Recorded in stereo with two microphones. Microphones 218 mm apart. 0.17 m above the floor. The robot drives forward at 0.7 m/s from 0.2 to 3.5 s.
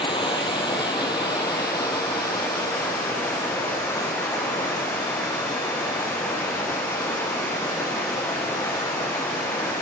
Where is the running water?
25° left (ahead or behind), 4 m; by 9.8 s 15° left (ahead or behind), 6 m.